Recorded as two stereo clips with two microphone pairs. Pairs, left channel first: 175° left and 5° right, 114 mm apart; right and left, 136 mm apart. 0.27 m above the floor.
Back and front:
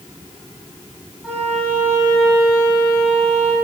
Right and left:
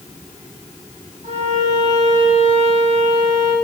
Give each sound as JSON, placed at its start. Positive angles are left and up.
{"t": 1.2, "sound": "a violin", "azimuth_deg": 75, "distance_m": 10.0}